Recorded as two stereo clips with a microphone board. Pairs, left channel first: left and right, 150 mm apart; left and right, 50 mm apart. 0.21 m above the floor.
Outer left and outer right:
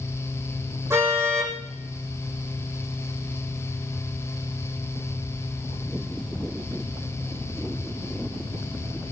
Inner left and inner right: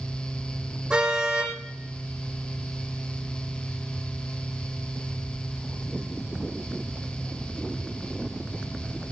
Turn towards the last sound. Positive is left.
turn(degrees=-20)  # may be behind; listen again after turning